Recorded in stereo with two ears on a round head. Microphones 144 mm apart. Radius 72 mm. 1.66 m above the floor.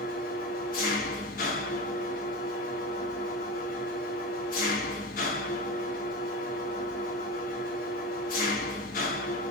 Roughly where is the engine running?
Left.